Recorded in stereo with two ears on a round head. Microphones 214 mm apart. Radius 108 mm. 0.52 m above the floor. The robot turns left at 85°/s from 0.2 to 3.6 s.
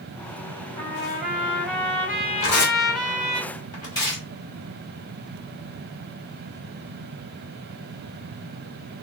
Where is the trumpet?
105° right, 2.0 m; by 3.4 s 30° left, 2.0 m.